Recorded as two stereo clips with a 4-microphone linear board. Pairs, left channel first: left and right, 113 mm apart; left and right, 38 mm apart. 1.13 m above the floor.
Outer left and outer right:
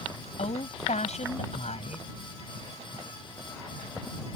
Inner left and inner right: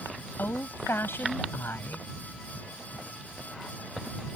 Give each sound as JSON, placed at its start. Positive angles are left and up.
{"t": 0.4, "sound": "a woman speaking", "side_deg": 75}